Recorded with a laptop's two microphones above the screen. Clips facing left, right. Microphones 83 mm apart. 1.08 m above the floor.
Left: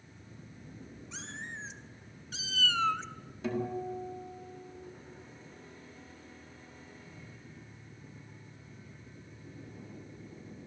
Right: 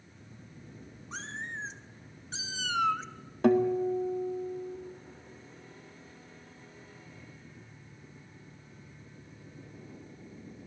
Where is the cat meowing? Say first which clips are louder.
Right 5 dB; 45° right (ahead or behind), 1.7 m; by 3.0 s centre (ahead or behind), 0.7 m.